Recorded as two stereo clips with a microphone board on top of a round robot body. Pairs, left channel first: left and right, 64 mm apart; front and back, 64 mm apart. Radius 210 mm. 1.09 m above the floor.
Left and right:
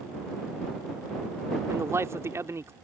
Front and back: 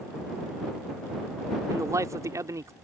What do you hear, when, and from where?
1.7 s a man speaking: 140° right